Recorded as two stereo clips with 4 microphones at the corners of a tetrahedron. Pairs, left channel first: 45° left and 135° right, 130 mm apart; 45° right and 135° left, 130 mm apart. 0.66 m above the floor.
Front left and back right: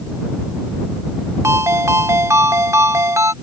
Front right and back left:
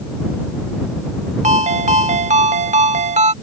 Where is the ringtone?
155° left.